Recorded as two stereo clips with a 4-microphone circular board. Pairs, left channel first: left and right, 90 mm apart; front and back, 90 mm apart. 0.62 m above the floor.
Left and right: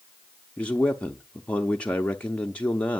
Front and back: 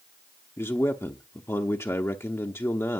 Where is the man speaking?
25° left, 0.6 m.